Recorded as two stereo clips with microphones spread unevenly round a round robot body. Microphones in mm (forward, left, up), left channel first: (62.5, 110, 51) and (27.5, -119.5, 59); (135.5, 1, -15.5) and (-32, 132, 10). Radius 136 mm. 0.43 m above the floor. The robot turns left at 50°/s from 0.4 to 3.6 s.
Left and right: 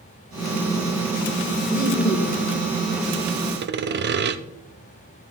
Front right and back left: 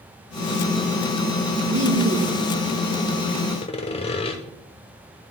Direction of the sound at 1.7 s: 175° left.